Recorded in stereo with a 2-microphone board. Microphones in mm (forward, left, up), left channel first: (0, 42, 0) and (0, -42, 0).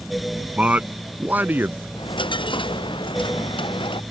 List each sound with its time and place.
0.6 s a man speaking: 15° right (ahead or behind); by 1.9 s 25° right (ahead or behind)
2.0 s a dropped coin: 75° left (ahead or behind)